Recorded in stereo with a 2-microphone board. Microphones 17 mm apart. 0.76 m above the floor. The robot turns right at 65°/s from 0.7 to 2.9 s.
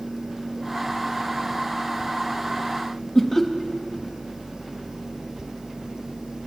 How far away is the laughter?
About 0.6 m.